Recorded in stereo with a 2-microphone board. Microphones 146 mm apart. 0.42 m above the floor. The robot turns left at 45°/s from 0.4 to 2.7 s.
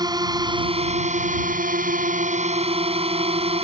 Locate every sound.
0.0 s a drone: 30° right; by 3.6 s 135° right